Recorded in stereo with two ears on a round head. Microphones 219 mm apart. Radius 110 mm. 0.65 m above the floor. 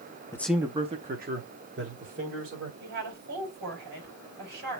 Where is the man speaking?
15° left (ahead or behind), 0.5 m; by 2.7 s 55° right (ahead or behind), 1.9 m.